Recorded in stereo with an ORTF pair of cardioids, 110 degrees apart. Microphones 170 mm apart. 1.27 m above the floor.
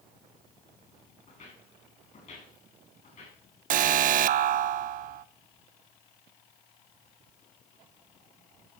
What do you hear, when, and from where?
1.3 s footsteps: 50° left, 7 m
3.7 s an alarm: 55° right, 0.7 m